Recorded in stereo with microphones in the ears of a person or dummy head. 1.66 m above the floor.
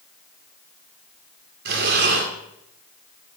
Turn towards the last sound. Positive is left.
turn(degrees=-65)  # may be behind; listen again after turning